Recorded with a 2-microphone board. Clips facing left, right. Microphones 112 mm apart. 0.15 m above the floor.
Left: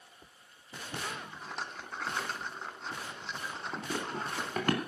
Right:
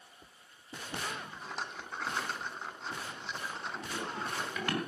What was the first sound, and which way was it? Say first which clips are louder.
A rattle: even; centre (ahead or behind).